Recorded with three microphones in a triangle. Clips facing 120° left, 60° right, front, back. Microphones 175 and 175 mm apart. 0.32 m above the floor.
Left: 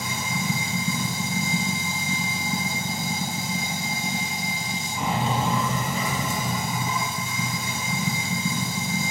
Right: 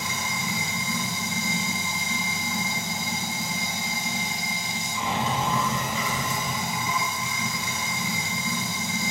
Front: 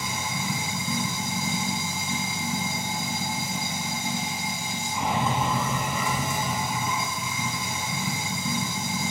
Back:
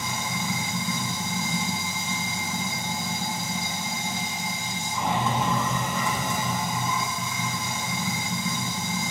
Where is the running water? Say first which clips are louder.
Left 3 dB, back 1 dB; 80° left, 0.8 m.